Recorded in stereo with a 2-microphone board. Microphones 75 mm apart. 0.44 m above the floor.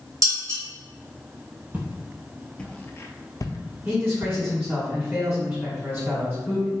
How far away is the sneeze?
I don't hear a sneeze.